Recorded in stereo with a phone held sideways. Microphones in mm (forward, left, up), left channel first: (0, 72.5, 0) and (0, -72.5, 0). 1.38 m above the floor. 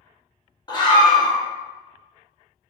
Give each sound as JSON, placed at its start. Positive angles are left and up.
{"t": 0.7, "sound": "a scream", "side_deg": 30, "distance_m": 0.9}